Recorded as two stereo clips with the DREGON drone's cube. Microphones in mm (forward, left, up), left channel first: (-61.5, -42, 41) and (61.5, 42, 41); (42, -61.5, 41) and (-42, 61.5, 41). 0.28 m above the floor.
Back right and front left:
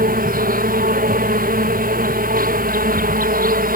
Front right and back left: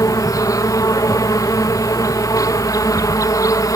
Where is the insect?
15° left.